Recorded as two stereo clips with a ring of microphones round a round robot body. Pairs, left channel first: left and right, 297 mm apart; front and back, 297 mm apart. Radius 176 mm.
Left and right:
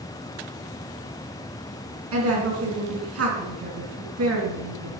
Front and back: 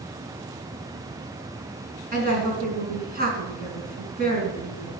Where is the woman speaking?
120° right, 4 m.